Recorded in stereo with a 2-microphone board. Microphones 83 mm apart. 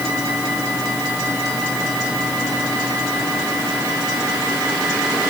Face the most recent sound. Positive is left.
No sound to turn to.